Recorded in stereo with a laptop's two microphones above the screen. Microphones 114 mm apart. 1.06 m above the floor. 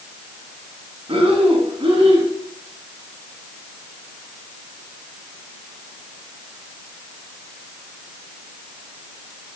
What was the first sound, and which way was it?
Breathing, 55° right (ahead or behind).